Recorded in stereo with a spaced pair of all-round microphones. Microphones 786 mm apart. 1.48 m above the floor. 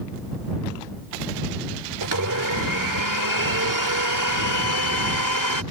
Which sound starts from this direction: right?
A blender, at 2.0 s.